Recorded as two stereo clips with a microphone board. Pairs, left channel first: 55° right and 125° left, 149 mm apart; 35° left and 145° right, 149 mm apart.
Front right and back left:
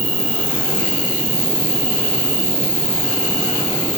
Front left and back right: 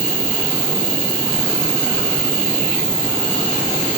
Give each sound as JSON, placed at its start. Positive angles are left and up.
{"t": 0.0, "sound": "an insect", "azimuth_deg": 105, "distance_m": 5.0}